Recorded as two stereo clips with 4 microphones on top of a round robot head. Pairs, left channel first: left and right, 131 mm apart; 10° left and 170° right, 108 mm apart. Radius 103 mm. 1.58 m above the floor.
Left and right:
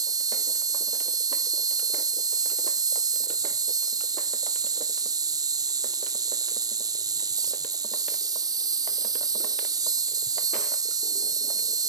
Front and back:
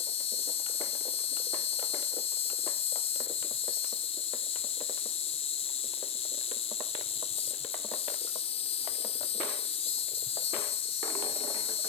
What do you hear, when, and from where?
0.0 s an insect: 30° right